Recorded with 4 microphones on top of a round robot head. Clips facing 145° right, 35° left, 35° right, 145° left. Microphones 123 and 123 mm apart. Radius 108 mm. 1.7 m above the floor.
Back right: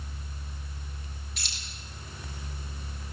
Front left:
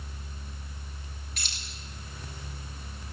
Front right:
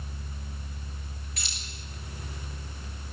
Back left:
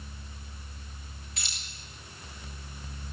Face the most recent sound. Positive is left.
turn(degrees=80)